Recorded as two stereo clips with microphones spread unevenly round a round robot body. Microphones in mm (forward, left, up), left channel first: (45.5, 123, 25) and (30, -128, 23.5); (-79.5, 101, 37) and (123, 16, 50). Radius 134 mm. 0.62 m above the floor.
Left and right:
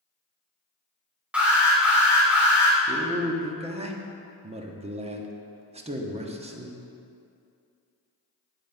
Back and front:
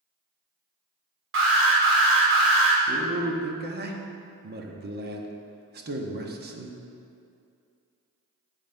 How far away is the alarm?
About 2.5 m.